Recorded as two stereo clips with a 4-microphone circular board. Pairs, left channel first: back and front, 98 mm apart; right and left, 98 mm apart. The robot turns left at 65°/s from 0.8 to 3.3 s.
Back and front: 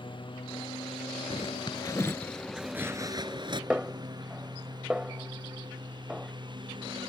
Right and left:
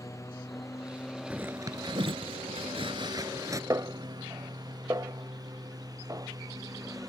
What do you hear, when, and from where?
0.0 s a lawn mower: 150° right; by 7.1 s 35° left
1.3 s a zipper: 165° left; by 3.6 s 35° left
3.7 s a snare drum: 75° left